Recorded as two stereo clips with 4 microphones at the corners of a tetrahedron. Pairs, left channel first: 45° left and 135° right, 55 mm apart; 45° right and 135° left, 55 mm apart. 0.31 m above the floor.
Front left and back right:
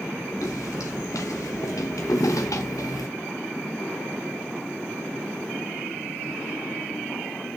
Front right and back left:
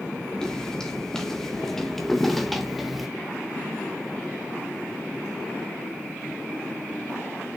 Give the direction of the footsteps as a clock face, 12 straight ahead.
11 o'clock.